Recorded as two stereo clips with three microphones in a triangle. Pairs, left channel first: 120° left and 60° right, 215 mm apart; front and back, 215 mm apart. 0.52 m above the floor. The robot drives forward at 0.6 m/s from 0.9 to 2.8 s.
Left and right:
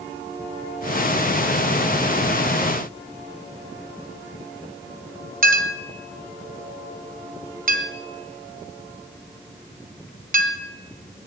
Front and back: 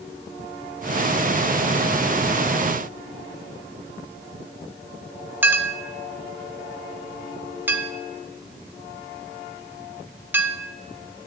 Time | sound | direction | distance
5.4 | a clink | 100° right | 0.6 m